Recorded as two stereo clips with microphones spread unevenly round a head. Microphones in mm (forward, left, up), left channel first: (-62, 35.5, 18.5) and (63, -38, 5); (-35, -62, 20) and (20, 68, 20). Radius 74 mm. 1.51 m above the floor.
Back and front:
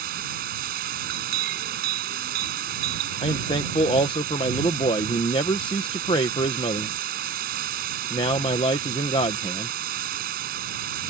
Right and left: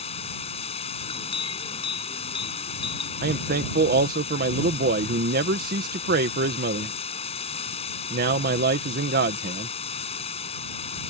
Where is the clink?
55° right.